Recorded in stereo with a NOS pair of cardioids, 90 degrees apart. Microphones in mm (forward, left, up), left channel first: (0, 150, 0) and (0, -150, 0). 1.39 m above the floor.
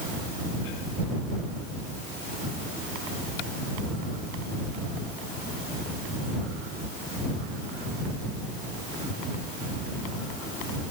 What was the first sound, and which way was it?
Only background noise.